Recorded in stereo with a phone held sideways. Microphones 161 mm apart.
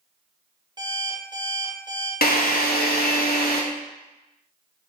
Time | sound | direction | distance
0.8 | an alarm clock | 25° right (ahead or behind) | 0.9 m
2.2 | a drill | 70° left (ahead or behind) | 0.7 m